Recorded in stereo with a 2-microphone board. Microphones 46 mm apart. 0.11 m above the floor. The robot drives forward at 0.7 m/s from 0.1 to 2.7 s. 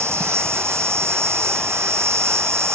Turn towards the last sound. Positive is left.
turn(degrees=-85)